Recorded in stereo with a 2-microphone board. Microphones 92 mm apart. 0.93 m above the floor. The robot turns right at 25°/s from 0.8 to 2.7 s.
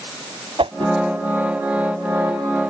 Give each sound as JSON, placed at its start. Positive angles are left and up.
{"t": 0.6, "sound": "a whoosh", "side_deg": -75}